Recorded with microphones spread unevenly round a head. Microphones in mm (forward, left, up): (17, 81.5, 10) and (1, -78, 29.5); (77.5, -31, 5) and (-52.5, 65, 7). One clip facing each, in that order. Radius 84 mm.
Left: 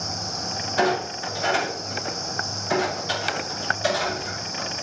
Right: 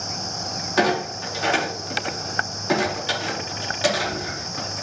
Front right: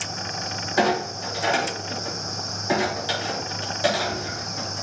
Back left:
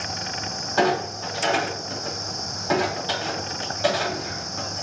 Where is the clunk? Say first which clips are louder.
Right 2 dB, even; 110° right, 4.5 m.